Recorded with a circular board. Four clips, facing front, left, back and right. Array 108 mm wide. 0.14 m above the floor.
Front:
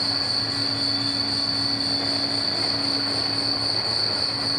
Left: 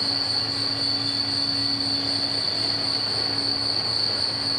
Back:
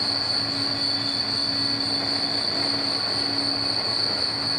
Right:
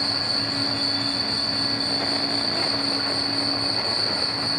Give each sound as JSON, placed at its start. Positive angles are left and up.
{"t": 0.0, "sound": "an insect", "azimuth_deg": -30, "distance_m": 4.0}